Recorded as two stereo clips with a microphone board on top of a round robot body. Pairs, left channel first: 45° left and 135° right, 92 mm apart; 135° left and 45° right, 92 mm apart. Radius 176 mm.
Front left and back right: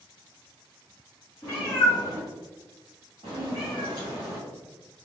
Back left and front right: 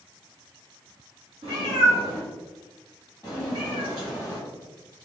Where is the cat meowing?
20° right, 1.0 m; by 4.4 s 175° right, 1.5 m.